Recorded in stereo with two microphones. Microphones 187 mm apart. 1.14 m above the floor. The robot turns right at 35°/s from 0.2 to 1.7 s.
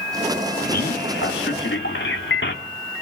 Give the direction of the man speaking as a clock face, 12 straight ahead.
10 o'clock.